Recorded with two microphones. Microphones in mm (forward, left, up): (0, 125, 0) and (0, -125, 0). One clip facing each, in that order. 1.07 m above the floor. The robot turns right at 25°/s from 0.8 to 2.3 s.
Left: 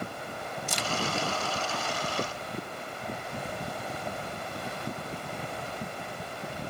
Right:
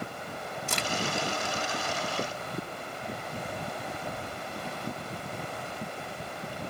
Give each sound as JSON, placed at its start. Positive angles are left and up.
{"t": 0.7, "sound": "a crack", "side_deg": -65}